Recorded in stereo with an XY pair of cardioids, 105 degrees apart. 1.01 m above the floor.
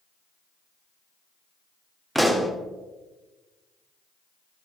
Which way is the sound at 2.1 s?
5° right.